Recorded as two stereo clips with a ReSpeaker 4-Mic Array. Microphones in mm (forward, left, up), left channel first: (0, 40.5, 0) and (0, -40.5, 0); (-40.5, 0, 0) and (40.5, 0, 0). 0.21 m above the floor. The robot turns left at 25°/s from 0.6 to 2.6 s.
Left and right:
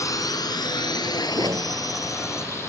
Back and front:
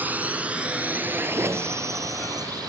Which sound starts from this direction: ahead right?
A whoosh, at 1.3 s.